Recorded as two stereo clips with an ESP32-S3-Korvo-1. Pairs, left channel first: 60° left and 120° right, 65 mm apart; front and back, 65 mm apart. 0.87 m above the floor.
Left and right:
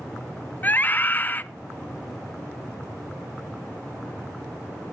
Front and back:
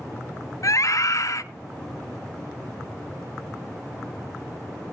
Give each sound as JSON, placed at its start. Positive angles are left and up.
{"t": 0.6, "sound": "a scream", "azimuth_deg": 5, "distance_m": 0.9}